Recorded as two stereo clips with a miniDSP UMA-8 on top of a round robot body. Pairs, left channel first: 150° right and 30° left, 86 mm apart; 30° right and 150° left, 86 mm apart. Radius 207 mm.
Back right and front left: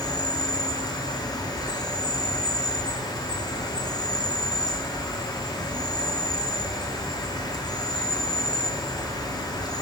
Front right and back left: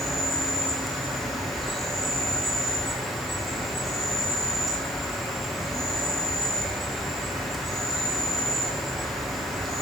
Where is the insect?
120° right, 1.3 m.